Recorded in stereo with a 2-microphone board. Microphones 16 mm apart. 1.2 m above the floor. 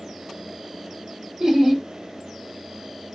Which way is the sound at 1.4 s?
40° right (ahead or behind).